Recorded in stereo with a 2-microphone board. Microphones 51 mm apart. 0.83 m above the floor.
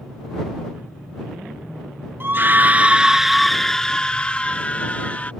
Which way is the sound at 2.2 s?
45° right (ahead or behind).